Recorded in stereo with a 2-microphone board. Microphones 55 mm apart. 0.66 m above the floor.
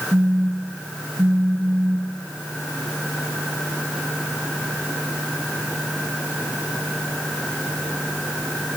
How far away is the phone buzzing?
About 2.5 m.